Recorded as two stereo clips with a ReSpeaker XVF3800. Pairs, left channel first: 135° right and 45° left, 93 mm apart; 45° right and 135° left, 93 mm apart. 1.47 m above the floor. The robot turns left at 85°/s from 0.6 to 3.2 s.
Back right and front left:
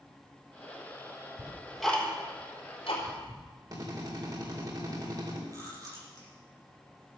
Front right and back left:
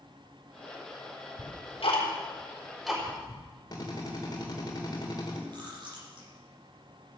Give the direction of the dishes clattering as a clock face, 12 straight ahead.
No dishes clattering in this recording.